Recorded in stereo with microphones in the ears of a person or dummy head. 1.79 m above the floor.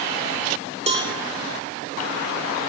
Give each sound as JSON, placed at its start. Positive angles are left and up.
{"t": 0.9, "sound": "a cowbell", "side_deg": -30, "distance_m": 0.9}